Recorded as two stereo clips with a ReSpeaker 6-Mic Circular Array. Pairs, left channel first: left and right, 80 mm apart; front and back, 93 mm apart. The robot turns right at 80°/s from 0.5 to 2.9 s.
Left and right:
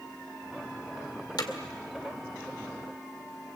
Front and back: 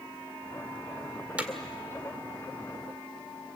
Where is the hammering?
105° left, 1.9 m; by 1.5 s 120° left, 1.9 m.